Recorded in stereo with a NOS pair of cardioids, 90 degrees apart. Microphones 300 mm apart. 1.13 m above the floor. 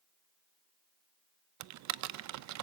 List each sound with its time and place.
1.6 s typing on a keyboard: 70° right, 0.6 m